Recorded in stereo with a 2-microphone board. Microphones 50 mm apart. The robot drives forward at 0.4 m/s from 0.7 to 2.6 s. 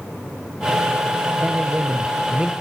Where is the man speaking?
20° right (ahead or behind), 1.0 m.